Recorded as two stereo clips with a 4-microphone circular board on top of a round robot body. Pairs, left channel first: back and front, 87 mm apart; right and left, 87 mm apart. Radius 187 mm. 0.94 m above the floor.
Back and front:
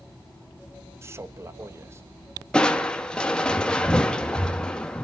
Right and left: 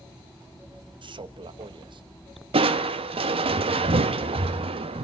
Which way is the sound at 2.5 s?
100° left.